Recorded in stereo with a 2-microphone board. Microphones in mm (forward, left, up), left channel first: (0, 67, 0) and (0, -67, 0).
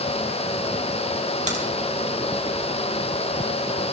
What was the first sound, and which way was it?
A crack, 55° right (ahead or behind).